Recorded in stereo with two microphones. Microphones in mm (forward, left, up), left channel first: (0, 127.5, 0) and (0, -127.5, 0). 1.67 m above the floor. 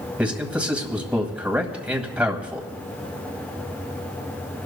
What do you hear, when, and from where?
0.2 s a man speaking: 5° right (ahead or behind), 1.8 m